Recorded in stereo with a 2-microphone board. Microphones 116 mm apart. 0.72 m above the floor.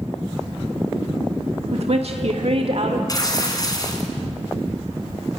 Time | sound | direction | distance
1.7 | a woman speaking | 60° right (ahead or behind) | 1.3 m
3.1 | tearing paper | 30° left (ahead or behind) | 3.5 m